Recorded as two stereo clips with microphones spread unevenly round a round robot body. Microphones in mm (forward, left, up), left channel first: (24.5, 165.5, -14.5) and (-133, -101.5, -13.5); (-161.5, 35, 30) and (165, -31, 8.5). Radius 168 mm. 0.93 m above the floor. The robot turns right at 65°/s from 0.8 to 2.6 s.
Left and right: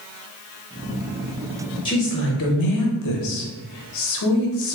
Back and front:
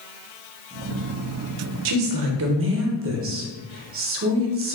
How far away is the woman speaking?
About 0.6 m.